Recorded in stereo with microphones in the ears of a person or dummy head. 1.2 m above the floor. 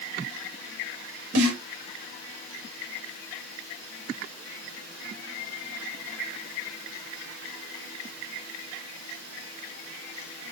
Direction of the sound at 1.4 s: 85° right.